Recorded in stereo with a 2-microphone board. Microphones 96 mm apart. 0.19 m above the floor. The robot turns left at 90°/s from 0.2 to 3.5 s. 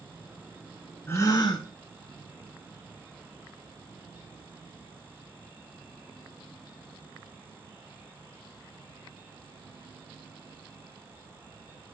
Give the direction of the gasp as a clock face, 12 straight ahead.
7 o'clock.